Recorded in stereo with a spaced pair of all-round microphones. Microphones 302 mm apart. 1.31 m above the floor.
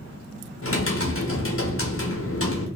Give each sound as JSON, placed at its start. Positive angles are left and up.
{"t": 0.6, "sound": "typing on a keyboard", "side_deg": 45, "distance_m": 0.9}